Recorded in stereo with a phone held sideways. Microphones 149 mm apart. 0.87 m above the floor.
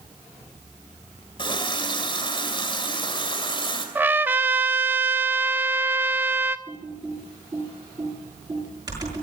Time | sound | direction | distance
1.4 | a running tap | 35° left (ahead or behind) | 2.5 m
4.0 | a trumpet | 15° right (ahead or behind) | 0.6 m
6.7 | typing on a keyboard | 25° right (ahead or behind) | 8 m